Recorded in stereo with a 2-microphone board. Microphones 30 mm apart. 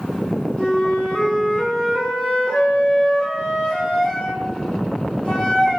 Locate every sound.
0.6 s a flute: 40° left (ahead or behind), 1.1 m